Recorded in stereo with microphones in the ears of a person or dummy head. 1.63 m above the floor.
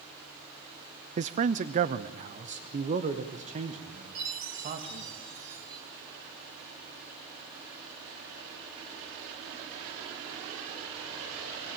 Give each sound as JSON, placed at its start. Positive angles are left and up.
{"t": 1.2, "sound": "a man speaking", "side_deg": -35, "distance_m": 0.6}
{"t": 4.2, "sound": "a chime", "side_deg": -75, "distance_m": 5.5}